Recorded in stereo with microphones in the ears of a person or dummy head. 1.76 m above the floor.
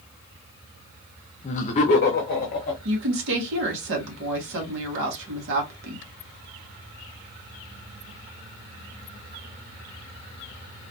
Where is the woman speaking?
70° right (ahead or behind), 1.2 m.